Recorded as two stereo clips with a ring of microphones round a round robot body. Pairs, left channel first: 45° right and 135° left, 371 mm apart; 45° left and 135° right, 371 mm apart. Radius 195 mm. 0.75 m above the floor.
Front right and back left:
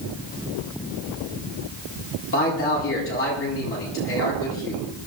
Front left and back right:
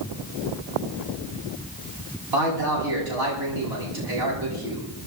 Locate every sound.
2.3 s a man speaking: 105° right, 8 m